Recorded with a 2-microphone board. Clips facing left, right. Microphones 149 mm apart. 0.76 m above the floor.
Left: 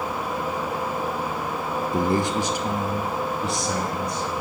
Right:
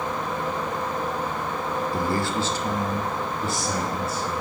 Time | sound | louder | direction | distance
1.9 | a man speaking | left 5 dB | 20° left (ahead or behind) | 0.6 m